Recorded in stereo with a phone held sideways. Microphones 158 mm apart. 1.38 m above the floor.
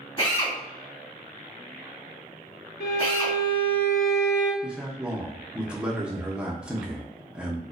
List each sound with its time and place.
0.2 s a drill: 30° left (ahead or behind), 1.6 m
2.8 s a violin: 80° left, 0.9 m
4.6 s a man speaking: 5° right (ahead or behind), 0.6 m